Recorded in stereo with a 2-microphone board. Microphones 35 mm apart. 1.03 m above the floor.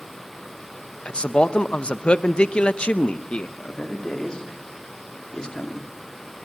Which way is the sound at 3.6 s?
25° left (ahead or behind).